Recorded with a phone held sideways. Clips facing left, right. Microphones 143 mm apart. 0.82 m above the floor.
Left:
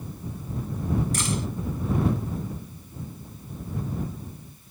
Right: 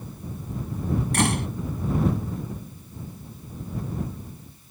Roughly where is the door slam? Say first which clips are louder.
Right 5 dB; right.